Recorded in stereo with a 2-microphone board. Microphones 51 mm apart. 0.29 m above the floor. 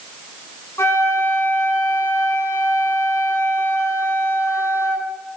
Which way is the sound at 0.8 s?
65° left (ahead or behind).